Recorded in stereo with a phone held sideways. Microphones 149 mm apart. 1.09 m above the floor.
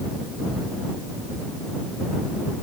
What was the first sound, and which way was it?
Only background noise.